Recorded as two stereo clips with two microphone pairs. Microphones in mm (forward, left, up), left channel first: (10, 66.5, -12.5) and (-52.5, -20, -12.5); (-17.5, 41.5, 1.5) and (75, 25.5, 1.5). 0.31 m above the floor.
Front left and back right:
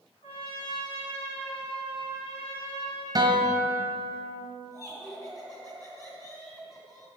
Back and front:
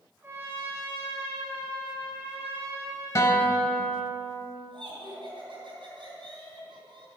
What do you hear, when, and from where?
0.2 s a trumpet: 55° left, 3 m
3.1 s a guitar: 165° right, 1.5 m
4.7 s laughter: straight ahead, 3.5 m